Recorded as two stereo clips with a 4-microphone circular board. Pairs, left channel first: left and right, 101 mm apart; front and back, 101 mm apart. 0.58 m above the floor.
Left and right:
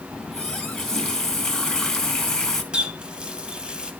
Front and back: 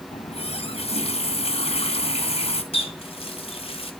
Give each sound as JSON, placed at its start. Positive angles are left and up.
{"t": 0.1, "sound": "a running tap", "azimuth_deg": 5, "distance_m": 3.0}
{"t": 2.7, "sound": "a running tap", "azimuth_deg": -10, "distance_m": 2.5}